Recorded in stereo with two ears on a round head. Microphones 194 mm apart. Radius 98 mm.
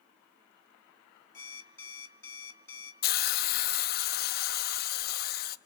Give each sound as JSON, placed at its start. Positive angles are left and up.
{"t": 1.3, "sound": "an alarm clock", "side_deg": 10, "distance_m": 2.5}
{"t": 3.0, "sound": "a hiss", "side_deg": 45, "distance_m": 0.8}